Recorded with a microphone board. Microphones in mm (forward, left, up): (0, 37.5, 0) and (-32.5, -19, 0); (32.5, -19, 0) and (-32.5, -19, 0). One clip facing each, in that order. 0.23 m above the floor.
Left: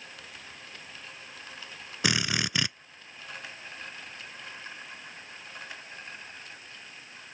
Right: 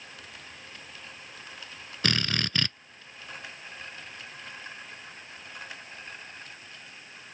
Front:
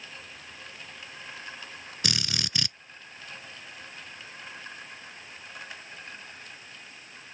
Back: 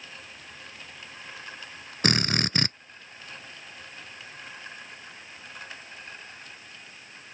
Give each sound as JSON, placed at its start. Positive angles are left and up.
{"t": 2.0, "sound": "a drill", "azimuth_deg": 135}